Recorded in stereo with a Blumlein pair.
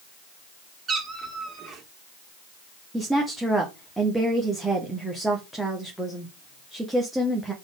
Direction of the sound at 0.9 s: 20° right.